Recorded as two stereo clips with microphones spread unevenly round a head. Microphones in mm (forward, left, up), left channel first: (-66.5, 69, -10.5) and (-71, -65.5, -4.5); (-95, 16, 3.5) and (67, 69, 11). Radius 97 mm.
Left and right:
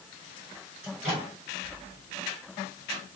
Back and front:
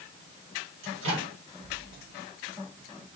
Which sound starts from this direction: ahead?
A microwave, at 0.8 s.